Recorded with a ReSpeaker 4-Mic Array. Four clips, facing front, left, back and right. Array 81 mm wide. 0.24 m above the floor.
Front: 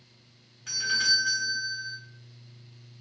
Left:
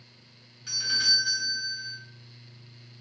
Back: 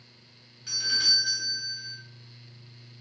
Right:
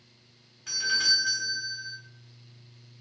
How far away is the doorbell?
About 1.4 m.